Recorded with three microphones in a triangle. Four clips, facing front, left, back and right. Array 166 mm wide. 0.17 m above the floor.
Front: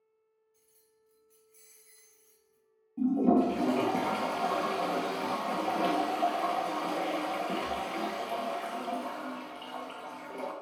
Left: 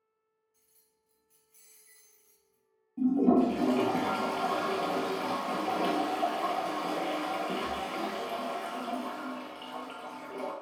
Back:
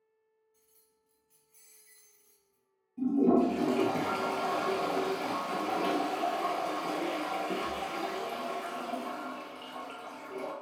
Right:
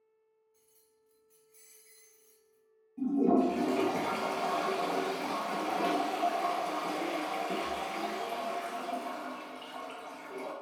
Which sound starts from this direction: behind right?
Keys jangling, at 0.5 s.